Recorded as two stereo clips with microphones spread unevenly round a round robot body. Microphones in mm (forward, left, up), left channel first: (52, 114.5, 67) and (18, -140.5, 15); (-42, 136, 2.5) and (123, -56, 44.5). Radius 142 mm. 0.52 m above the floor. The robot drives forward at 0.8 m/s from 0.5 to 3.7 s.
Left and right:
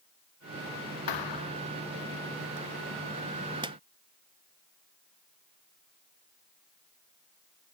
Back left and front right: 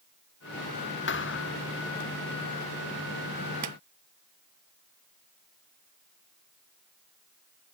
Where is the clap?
25° right.